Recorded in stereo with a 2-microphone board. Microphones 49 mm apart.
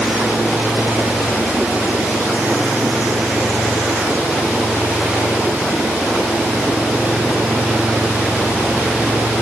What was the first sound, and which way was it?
Only background noise.